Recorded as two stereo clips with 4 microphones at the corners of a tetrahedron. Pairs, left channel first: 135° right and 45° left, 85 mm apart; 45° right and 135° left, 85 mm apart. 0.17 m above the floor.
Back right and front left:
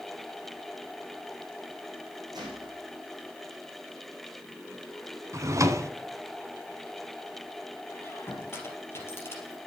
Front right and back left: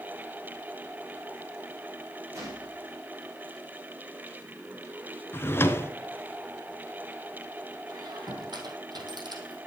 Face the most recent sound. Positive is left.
turn(degrees=165)